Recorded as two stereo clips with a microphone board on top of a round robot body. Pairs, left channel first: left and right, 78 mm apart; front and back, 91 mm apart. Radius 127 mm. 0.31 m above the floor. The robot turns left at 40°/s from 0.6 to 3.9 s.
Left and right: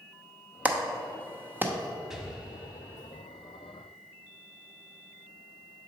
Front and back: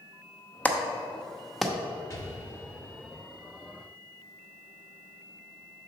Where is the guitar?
No guitar in this recording.